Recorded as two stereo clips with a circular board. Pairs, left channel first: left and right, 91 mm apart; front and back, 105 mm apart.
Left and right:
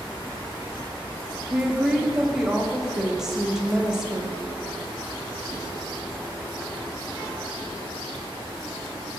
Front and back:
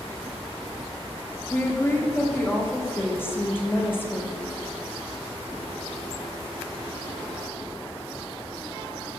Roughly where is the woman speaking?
Ahead.